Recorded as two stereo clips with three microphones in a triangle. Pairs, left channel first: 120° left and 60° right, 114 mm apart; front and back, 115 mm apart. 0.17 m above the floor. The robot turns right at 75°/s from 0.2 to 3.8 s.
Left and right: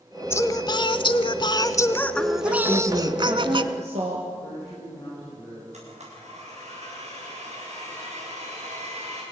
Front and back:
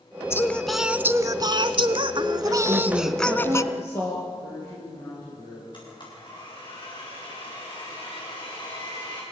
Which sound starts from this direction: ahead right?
A blender, at 5.7 s.